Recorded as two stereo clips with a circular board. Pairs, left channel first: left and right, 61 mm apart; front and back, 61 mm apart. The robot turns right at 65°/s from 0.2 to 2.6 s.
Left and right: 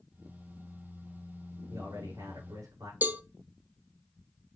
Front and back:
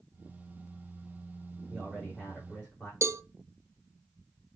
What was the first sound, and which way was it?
A man speaking, 115° right.